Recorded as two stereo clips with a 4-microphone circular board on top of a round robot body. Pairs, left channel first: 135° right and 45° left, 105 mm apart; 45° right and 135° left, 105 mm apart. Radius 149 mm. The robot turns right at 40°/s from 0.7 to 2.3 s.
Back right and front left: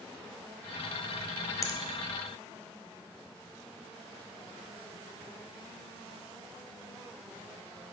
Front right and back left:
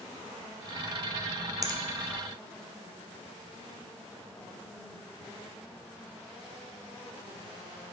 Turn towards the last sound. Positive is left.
turn(degrees=-155)